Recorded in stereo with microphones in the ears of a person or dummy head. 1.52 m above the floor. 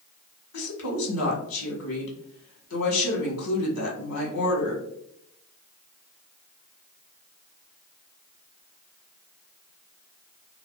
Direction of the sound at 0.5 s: 85° left.